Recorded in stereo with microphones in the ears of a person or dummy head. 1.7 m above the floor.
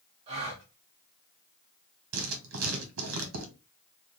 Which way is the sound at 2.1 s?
80° right.